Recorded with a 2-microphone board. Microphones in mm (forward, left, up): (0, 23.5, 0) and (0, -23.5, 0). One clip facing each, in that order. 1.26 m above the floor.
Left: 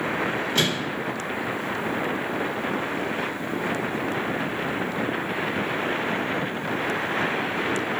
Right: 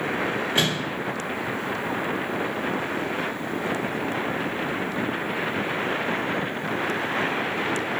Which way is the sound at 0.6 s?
20° right (ahead or behind).